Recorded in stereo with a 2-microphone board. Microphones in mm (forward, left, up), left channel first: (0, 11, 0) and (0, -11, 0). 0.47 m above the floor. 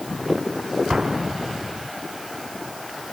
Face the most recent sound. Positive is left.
turn(degrees=-30)  # may be behind; listen again after turning